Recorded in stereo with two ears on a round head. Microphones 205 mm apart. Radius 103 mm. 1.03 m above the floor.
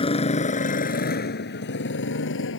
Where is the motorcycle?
25° left (ahead or behind); by 2.6 s 60° left (ahead or behind).